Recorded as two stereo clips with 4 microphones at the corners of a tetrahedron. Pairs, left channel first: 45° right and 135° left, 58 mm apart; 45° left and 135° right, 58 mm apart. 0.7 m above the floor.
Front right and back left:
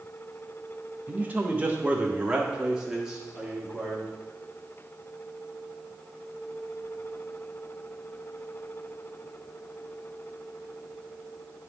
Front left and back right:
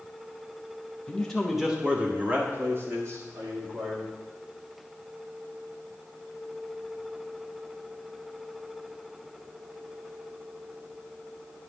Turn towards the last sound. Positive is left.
turn(degrees=-140)